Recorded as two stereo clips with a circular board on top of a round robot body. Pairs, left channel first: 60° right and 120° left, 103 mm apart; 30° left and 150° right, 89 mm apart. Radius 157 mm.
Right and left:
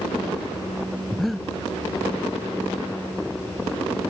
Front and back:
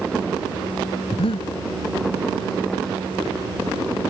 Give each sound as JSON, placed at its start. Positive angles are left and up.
{"t": 1.1, "sound": "breathing", "azimuth_deg": 30}